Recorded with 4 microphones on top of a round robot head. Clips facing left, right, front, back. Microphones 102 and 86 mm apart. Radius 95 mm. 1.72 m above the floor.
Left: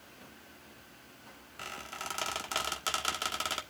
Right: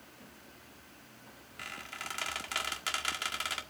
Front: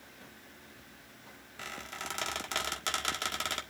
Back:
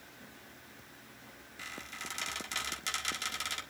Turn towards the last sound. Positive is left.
turn(degrees=35)